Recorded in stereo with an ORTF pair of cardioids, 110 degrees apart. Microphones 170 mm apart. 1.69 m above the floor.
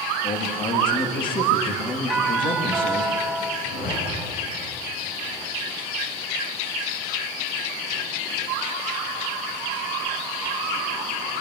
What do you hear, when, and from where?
0.2 s a man speaking: 30° left, 3.5 m
2.1 s a doorbell: 5° right, 3.5 m
3.6 s a zipper: 55° left, 9.5 m